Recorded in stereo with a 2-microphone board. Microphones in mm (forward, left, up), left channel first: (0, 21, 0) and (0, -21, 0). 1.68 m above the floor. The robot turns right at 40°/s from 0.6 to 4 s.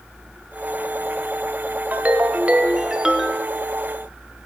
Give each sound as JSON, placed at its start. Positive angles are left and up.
{"t": 1.9, "sound": "a ringtone", "azimuth_deg": -65, "distance_m": 0.7}